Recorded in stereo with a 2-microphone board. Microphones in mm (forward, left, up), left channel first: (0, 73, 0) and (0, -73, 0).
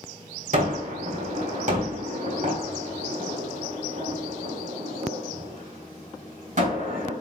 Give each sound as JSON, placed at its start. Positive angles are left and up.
{"t": 0.5, "sound": "a gunshot", "side_deg": -60, "distance_m": 4.0}